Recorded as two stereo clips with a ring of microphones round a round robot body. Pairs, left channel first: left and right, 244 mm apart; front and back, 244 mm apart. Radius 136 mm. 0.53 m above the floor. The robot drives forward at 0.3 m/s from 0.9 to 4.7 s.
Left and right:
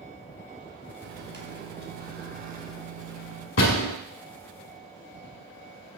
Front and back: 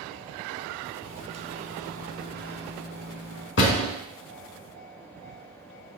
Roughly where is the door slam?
Ahead left.